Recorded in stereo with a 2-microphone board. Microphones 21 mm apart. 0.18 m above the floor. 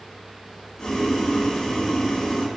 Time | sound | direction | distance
0.8 | boiling | 35° left (ahead or behind) | 0.6 m